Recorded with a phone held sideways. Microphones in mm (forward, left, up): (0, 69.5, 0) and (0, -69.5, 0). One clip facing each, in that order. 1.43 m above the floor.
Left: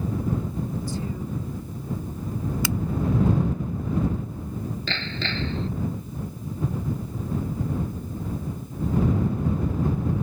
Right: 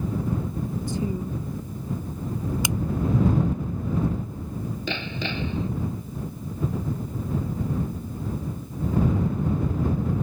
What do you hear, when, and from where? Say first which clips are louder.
0.9 s a woman speaking: right 3 dB; 25° right (ahead or behind)
2.6 s a finger snap: left 1 dB; 20° right (ahead or behind)
4.9 s hammering: right 1 dB; 15° right (ahead or behind)